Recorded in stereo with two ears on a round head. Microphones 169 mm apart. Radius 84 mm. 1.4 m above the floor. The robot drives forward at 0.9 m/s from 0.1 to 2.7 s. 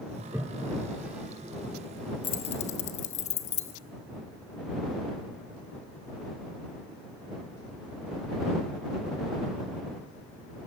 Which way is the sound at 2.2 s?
30° left (ahead or behind).